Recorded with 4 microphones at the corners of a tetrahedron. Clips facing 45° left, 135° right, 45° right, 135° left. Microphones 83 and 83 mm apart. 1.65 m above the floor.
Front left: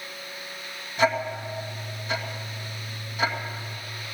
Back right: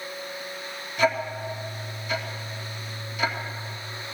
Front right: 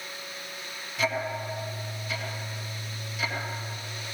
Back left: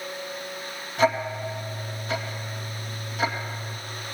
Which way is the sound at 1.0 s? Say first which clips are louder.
Even, back left 6 dB; 100° left.